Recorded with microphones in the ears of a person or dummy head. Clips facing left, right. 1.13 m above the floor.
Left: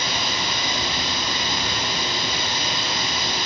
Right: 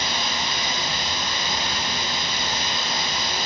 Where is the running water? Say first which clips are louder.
Left 1 dB; 60° left (ahead or behind), 1.4 m.